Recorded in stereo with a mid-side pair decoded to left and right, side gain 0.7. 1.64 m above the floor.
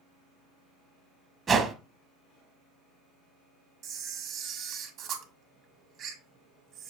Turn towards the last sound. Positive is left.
turn(degrees=-50)